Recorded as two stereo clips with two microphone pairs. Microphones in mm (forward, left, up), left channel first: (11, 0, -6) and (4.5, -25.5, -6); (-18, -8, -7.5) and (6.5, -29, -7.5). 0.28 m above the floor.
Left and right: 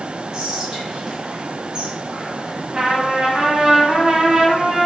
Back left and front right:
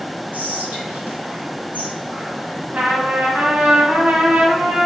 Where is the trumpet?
50° right, 1.4 m.